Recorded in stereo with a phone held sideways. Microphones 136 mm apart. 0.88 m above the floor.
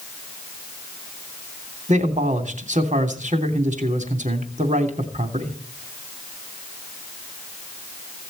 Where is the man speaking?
65° right (ahead or behind), 3 m.